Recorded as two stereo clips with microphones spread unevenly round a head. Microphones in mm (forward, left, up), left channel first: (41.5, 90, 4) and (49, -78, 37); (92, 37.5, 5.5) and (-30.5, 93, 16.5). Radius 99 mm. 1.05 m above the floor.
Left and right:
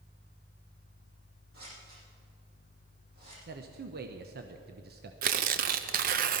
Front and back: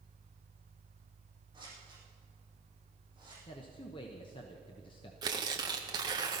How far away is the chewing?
I don't hear chewing.